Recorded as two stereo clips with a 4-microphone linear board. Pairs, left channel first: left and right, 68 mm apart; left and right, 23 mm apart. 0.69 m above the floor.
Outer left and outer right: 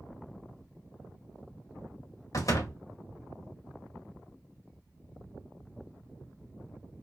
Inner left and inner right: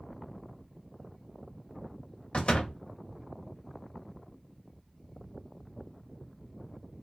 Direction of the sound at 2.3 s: 55° left (ahead or behind).